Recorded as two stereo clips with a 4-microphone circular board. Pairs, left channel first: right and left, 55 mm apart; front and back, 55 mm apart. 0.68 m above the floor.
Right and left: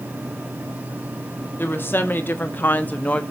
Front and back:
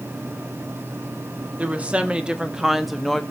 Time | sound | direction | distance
1.6 | a woman speaking | 125° right | 1.6 m